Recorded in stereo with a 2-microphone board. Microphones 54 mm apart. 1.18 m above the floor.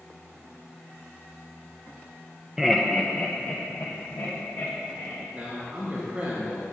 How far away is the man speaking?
About 1.7 m.